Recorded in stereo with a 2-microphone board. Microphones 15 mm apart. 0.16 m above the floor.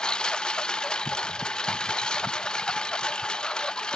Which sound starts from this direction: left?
A lawn mower, at 0.0 s.